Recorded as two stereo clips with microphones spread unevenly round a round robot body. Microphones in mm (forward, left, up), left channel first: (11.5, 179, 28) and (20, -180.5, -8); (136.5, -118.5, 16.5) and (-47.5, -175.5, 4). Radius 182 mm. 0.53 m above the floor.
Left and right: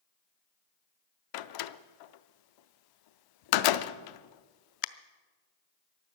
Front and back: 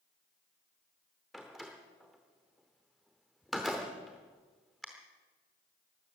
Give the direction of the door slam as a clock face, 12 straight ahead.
8 o'clock.